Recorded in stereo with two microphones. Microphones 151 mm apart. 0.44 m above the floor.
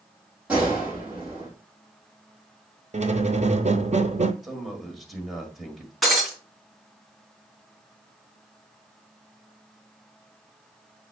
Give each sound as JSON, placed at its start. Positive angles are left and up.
{"t": 0.5, "sound": "a gunshot", "side_deg": -10, "distance_m": 3.5}
{"t": 2.9, "sound": "a squeak", "side_deg": -50, "distance_m": 0.6}
{"t": 4.4, "sound": "a man speaking", "side_deg": 0, "distance_m": 1.8}
{"t": 6.0, "sound": "breaking glass", "side_deg": 0, "distance_m": 2.5}